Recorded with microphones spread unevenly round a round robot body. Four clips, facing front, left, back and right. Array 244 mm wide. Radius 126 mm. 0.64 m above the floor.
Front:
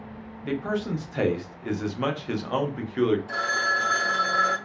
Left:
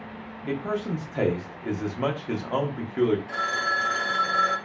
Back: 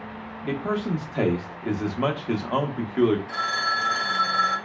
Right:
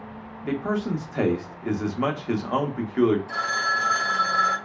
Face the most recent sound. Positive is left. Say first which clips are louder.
# right 1 dB, even
turn(degrees=30)